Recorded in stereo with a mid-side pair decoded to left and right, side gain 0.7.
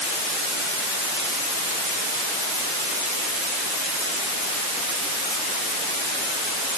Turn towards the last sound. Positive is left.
No sound to turn to.